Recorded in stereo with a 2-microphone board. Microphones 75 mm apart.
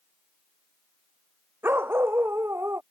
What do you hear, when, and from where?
1.6 s a dog barking: 30° right (ahead or behind); by 2.8 s 35° right (ahead or behind)